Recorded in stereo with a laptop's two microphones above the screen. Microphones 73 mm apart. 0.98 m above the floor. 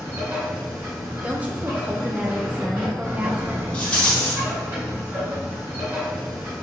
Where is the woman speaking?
20° right (ahead or behind), 0.6 m.